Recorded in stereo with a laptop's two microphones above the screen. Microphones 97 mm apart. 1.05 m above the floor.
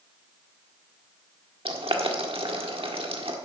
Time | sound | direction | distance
1.6 | boiling | 70° right (ahead or behind) | 1.4 m